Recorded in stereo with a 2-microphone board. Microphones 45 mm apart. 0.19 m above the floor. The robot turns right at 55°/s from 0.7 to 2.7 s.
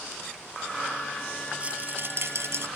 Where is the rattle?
155° right; by 2.7 s 95° right.